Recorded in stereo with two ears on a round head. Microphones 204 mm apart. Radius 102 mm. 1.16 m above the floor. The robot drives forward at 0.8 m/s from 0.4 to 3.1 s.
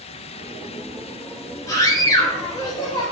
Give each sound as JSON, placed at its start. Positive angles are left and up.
{"t": 1.7, "sound": "a scream", "side_deg": 15, "distance_m": 5.0}